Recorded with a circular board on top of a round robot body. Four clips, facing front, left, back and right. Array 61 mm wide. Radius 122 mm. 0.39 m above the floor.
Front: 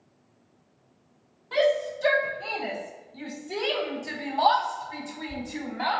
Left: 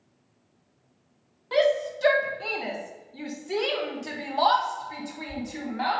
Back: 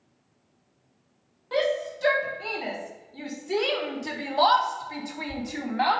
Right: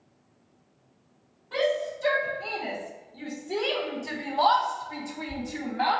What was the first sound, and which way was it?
A shout, 105° left.